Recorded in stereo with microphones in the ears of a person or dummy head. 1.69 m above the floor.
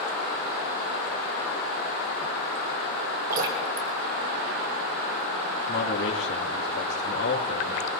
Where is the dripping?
50° right (ahead or behind), 2.5 m.